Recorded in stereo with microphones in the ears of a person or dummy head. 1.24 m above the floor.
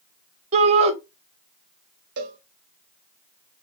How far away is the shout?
About 2.5 m.